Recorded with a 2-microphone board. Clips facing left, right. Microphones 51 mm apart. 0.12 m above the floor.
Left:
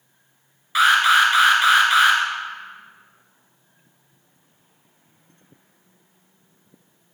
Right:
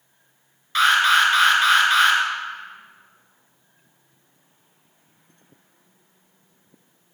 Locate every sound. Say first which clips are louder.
0.8 s an alarm: left 1 dB; 10° left (ahead or behind), 1.8 m